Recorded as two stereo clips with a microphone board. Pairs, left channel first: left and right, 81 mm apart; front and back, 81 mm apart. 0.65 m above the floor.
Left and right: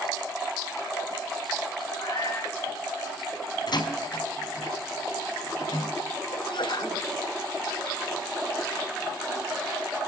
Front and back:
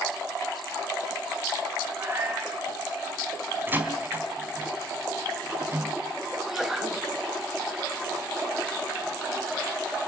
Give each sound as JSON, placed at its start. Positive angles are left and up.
{"t": 1.9, "sound": "a cat meowing", "azimuth_deg": 120, "distance_m": 7.5}
{"t": 3.7, "sound": "a door slam", "azimuth_deg": 115, "distance_m": 3.5}
{"t": 6.3, "sound": "a sneeze", "azimuth_deg": 95, "distance_m": 4.0}